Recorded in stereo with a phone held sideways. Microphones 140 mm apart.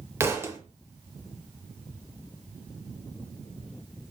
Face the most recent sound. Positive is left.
turn(degrees=-20)  # may be behind; listen again after turning